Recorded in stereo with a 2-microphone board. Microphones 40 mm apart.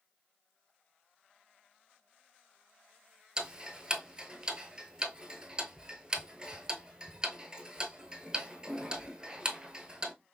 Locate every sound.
3.4 s ticking: 20° right (ahead or behind), 0.6 m